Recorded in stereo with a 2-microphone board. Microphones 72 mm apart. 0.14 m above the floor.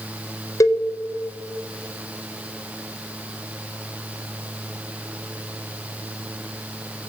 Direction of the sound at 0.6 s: 50° left (ahead or behind).